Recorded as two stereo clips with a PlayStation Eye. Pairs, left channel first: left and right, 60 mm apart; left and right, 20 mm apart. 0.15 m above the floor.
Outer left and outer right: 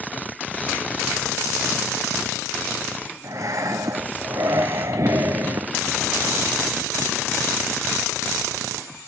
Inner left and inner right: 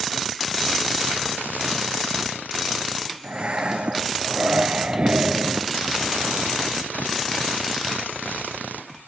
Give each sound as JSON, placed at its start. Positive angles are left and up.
{"t": 3.2, "sound": "breathing", "side_deg": -65, "distance_m": 0.6}